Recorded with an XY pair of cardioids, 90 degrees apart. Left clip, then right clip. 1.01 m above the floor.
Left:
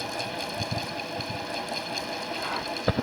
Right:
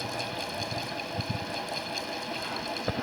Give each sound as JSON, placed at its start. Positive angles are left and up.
{"t": 0.0, "sound": "a fan", "azimuth_deg": 15}